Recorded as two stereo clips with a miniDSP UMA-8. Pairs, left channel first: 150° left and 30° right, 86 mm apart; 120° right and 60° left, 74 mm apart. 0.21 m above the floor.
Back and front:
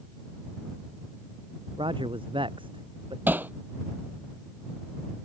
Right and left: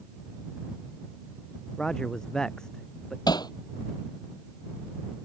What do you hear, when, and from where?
1.8 s a man speaking: 40° right
3.3 s hammering: 100° right